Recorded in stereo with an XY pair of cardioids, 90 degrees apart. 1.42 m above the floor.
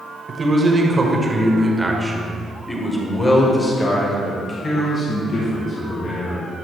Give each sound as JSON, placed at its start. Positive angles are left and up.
{"t": 0.3, "sound": "a man speaking", "azimuth_deg": -40, "distance_m": 1.6}